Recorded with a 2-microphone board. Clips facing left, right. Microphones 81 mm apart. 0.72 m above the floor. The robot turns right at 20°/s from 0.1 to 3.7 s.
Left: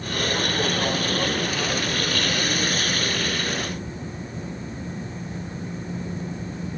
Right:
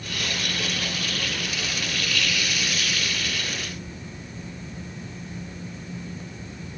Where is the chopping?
I don't hear chopping.